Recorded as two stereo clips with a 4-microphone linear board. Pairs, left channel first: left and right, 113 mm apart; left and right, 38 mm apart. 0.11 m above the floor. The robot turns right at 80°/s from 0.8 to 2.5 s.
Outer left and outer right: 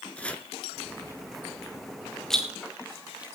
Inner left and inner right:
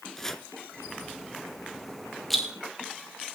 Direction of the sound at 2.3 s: 5° left (ahead or behind).